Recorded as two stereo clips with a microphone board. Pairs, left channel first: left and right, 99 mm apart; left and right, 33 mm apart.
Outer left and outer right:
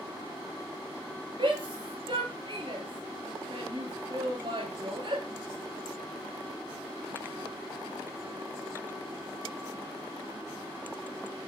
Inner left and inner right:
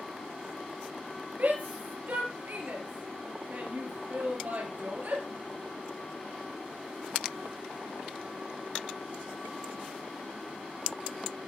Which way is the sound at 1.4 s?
60° right (ahead or behind).